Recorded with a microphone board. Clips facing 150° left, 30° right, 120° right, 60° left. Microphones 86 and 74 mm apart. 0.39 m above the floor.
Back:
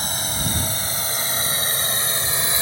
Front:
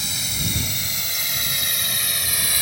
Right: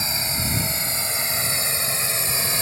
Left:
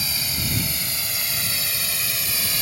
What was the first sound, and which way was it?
A drone, 175° right.